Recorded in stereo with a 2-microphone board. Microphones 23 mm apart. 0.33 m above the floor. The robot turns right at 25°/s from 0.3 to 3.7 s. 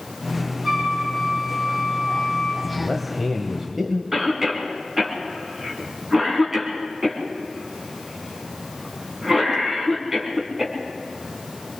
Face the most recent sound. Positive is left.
turn(degrees=-15)  # may be behind; listen again after turning